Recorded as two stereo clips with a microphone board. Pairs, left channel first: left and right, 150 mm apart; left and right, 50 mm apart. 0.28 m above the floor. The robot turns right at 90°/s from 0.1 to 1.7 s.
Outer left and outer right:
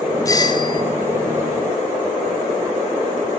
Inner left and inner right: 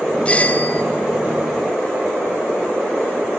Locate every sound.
0.2 s a doorbell: 45° left, 2.5 m; by 0.8 s 100° left, 2.5 m